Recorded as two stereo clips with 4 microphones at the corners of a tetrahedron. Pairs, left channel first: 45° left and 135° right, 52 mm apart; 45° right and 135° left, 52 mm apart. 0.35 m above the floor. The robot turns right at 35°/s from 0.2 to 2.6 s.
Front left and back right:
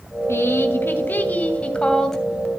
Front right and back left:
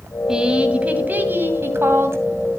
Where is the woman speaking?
60° left, 2.5 m; by 2.2 s 130° left, 2.5 m.